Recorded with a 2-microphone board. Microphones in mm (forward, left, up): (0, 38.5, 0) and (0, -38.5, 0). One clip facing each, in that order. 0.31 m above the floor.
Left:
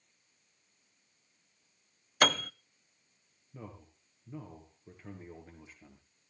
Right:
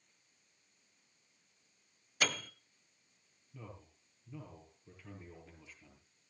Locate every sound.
2.2 s a piano: 55° left (ahead or behind), 0.5 m
3.5 s a man speaking: 35° left (ahead or behind), 5.5 m